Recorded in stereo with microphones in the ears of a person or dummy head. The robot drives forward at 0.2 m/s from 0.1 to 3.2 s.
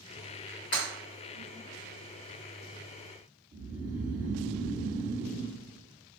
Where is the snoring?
25° right (ahead or behind), 1.1 m.